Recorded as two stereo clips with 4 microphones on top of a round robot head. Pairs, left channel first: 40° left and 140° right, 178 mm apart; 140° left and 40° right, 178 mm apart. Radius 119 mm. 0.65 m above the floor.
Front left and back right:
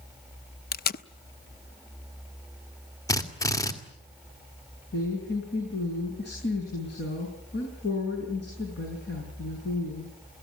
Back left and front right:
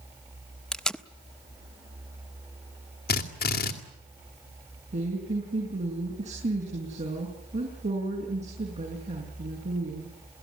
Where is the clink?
I don't hear a clink.